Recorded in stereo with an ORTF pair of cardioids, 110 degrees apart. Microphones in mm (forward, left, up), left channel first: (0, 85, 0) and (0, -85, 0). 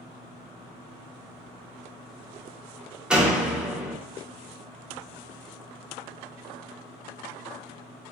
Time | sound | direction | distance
3.1 | a door slam | 5° right | 0.9 m